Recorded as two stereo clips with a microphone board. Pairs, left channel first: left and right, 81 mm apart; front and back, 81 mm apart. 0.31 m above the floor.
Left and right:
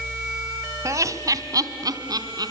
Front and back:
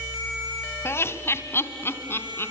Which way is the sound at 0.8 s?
50° right.